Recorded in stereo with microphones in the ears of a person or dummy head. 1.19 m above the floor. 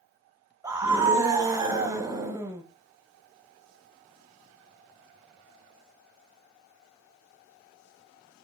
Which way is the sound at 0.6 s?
15° right (ahead or behind).